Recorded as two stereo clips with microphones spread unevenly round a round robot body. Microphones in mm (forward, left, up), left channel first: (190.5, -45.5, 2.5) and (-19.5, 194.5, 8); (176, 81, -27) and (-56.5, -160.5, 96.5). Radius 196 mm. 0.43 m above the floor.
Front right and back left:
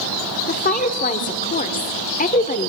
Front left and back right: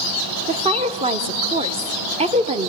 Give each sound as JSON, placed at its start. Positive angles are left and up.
{"t": 0.5, "sound": "a woman speaking", "azimuth_deg": -35, "distance_m": 1.2}